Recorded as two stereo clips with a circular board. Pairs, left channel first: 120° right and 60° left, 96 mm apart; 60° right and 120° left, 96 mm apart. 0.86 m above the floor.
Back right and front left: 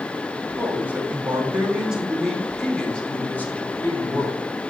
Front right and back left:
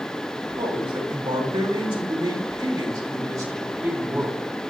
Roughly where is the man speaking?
Behind left.